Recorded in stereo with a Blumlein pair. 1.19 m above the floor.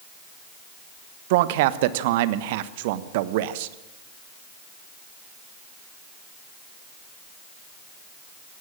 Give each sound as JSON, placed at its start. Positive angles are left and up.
{"t": 1.3, "sound": "a man speaking", "azimuth_deg": -50, "distance_m": 1.1}